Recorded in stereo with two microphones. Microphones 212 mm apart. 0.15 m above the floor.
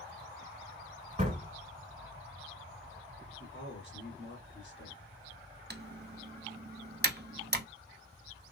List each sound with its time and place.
1.2 s a door slam: 30° right (ahead or behind), 1.6 m
3.4 s a man speaking: 55° left (ahead or behind), 1.8 m
5.7 s typing on a keyboard: 50° right (ahead or behind), 0.6 m